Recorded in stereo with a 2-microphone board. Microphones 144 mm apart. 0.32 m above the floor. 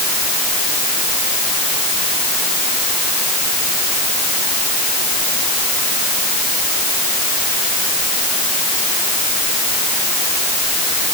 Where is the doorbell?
No doorbell in this recording.